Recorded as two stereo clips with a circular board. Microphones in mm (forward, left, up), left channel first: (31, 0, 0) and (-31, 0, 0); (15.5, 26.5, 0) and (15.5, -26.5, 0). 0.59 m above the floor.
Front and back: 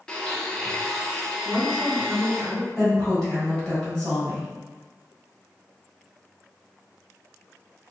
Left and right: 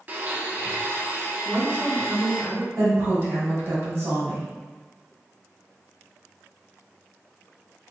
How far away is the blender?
About 0.6 m.